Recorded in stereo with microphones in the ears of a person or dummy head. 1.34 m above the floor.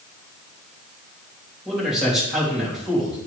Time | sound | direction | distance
1.6 | a man speaking | 5° right (ahead or behind) | 3 m